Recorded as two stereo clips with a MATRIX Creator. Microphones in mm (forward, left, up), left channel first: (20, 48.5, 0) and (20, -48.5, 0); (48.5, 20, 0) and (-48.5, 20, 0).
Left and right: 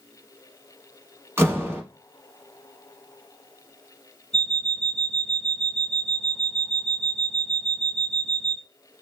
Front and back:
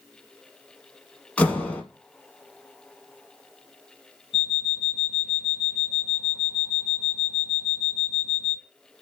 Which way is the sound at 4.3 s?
15° left.